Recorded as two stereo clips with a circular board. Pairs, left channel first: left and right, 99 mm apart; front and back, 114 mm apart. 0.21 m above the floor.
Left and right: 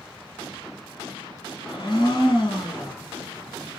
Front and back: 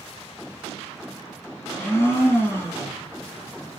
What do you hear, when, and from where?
1.6 s a blender: 65° left, 2 m